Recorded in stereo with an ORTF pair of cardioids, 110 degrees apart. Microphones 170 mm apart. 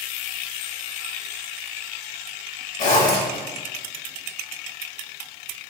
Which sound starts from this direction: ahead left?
A zipper, at 2.8 s.